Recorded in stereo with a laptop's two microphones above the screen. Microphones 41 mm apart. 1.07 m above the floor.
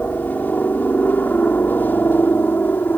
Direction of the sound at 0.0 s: 50° left (ahead or behind).